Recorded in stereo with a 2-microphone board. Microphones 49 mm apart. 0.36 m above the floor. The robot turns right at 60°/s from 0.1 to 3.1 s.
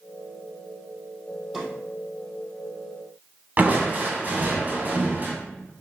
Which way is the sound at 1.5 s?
5° right (ahead or behind).